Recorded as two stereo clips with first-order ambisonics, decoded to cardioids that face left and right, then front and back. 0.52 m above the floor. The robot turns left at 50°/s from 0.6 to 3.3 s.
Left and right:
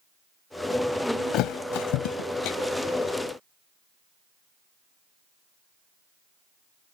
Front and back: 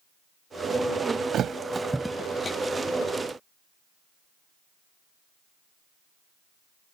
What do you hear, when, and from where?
1.3 s a thud: 125° left; by 2.6 s 65° left